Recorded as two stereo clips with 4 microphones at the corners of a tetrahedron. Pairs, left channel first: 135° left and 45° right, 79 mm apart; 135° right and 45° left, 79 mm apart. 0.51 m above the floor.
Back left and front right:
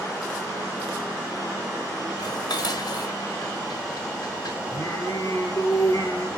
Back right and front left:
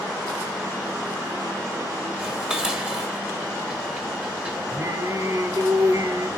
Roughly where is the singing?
Left.